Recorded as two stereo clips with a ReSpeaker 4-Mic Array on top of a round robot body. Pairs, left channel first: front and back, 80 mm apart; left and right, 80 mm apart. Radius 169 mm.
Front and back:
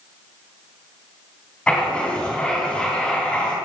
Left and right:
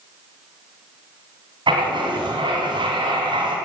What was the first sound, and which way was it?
Writing, 75° right.